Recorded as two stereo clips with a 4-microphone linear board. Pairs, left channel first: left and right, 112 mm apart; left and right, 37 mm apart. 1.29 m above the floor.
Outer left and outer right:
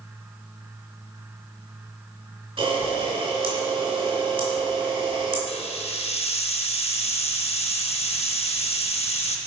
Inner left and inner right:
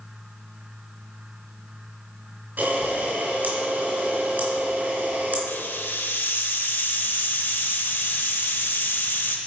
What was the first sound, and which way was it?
A camera shutter, 60° right (ahead or behind).